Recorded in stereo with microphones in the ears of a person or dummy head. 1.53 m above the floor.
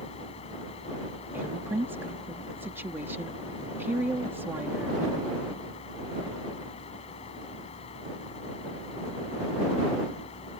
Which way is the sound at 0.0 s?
35° left (ahead or behind).